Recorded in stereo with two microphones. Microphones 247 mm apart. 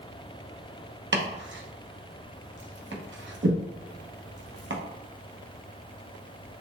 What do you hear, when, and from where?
1.1 s chopping: 50° right (ahead or behind), 0.9 m